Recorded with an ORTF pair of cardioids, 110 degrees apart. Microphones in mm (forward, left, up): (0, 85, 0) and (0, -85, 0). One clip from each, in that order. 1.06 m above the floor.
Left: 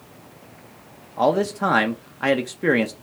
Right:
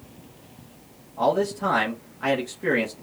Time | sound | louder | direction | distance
1.2 | a man speaking | left 3 dB | 35° left | 0.8 m